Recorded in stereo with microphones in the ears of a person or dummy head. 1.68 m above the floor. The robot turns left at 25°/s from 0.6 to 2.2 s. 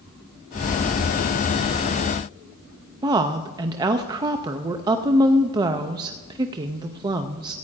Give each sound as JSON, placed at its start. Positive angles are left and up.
{"t": 3.0, "sound": "a woman speaking", "side_deg": -20, "distance_m": 0.5}